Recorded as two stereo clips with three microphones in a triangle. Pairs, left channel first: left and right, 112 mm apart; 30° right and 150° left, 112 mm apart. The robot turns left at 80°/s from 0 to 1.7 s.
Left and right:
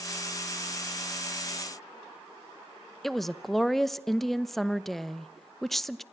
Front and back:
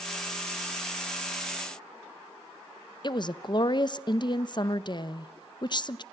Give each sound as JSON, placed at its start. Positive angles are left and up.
{"t": 3.0, "sound": "a woman speaking", "azimuth_deg": 5, "distance_m": 0.8}